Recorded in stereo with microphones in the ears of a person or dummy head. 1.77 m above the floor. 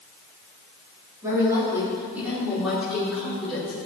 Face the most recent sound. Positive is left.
turn(degrees=0)  # may be behind; listen again after turning